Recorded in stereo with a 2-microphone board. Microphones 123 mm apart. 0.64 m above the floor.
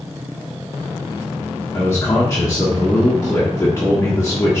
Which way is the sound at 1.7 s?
25° left (ahead or behind).